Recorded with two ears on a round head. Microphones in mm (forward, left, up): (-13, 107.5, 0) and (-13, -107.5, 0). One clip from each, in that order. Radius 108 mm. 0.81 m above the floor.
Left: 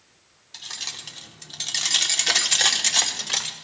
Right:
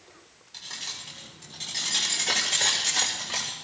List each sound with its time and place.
0.5 s keys jangling: 35° left (ahead or behind), 1.6 m; by 3.5 s 65° left (ahead or behind), 1.8 m